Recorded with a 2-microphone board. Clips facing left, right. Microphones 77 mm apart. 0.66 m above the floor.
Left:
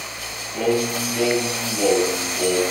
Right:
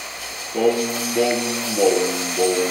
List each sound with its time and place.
0.5 s singing: 65° right (ahead or behind), 1.3 m